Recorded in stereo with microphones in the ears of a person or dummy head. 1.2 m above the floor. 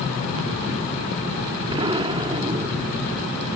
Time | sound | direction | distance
1.7 | an explosion | 25° right (ahead or behind) | ?